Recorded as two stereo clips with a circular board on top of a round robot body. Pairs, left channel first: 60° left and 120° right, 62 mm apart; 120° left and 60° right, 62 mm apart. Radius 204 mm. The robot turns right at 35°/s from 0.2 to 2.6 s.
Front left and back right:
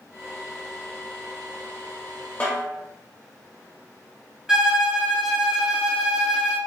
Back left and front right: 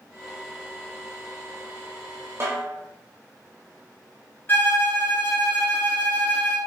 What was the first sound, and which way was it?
A snare drum, 10° right.